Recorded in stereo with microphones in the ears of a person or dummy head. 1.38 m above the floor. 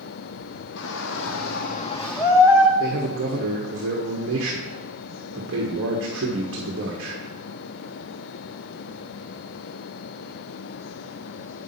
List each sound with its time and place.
0.8 s a shout: 75° left (ahead or behind), 1.5 m; by 2.7 s 25° right (ahead or behind), 1.2 m
2.8 s a man speaking: 70° right (ahead or behind), 1.5 m